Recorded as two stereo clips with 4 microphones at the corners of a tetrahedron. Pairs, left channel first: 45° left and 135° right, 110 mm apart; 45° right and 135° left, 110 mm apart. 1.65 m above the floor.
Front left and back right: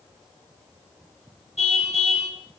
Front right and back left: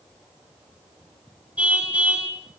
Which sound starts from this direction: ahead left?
A car horn, at 1.6 s.